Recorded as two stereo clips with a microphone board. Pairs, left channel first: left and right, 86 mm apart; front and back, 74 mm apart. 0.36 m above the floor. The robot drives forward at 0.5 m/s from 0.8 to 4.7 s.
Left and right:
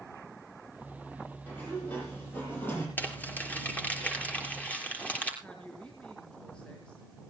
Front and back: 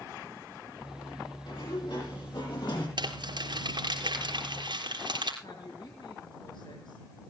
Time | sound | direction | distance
1.5 | a sliding door | 20° left | 8 m
3.0 | crumpling | 160° left | 3 m
5.4 | a woman speaking | 15° left | 4.5 m